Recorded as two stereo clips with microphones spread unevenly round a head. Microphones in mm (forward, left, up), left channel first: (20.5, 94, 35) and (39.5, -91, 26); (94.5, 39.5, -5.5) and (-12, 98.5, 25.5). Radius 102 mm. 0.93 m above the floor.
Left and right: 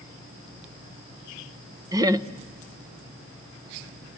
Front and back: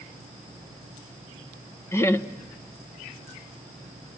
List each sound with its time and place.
1.9 s laughter: 30° right, 0.9 m